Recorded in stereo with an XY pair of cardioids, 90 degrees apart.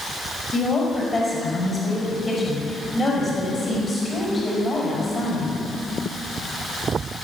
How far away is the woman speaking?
About 6 m.